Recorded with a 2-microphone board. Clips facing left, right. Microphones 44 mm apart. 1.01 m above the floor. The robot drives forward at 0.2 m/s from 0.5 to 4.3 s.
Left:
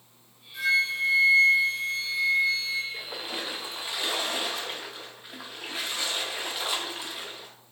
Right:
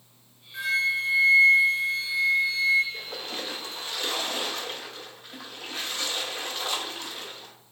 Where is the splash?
15° left (ahead or behind), 0.6 m; by 7.5 s 10° left (ahead or behind), 0.8 m.